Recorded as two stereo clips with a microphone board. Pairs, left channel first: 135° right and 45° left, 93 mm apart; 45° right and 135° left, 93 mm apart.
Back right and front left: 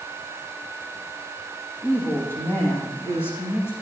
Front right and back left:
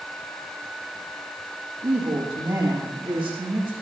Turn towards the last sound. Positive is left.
turn(degrees=160)